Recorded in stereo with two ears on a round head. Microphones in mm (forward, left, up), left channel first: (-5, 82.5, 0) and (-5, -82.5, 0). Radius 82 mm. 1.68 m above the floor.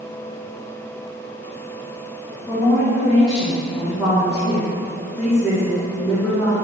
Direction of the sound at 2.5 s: Centre (ahead or behind).